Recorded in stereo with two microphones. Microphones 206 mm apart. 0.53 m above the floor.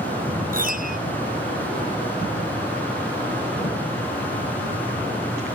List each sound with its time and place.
0.5 s a piano: 45° right (ahead or behind)